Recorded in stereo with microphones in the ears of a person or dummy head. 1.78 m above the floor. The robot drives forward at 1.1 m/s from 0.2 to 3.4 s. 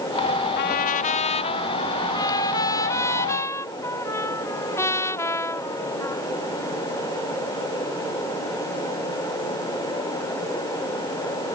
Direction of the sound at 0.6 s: 50° left (ahead or behind).